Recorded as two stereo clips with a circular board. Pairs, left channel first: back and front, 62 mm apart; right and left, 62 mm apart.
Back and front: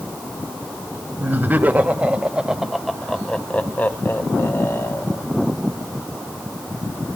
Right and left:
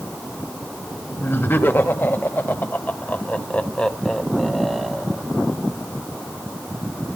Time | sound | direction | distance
1.2 | laughter | 45° right | 1.7 m